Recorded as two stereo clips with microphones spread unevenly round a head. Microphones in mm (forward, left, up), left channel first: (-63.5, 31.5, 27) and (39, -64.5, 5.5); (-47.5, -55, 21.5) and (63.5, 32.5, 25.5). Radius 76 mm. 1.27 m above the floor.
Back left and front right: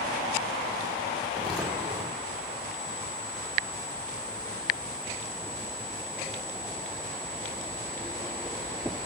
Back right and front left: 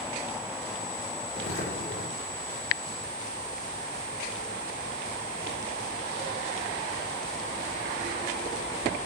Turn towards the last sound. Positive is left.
turn(degrees=-125)